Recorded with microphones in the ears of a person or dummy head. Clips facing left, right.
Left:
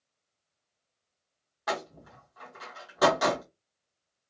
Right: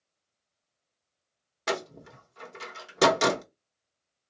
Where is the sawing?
No sawing in this recording.